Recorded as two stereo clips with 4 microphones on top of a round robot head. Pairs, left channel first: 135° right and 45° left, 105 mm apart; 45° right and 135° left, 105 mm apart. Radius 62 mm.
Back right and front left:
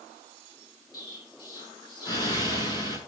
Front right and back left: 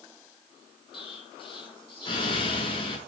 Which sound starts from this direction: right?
An explosion, at 0.9 s.